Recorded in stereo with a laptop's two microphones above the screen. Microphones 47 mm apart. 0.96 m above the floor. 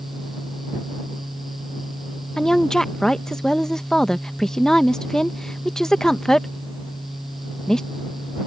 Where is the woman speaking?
10° left (ahead or behind).